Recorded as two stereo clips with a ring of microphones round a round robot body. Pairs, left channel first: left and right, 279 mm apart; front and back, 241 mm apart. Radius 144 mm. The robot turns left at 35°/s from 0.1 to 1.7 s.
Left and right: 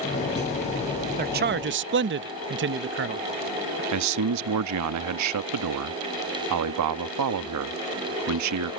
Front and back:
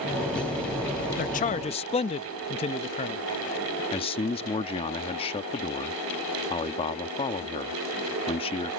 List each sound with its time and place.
1.2 s a man speaking: 40° right; by 3.8 s 60° right
3.9 s a man speaking: 70° right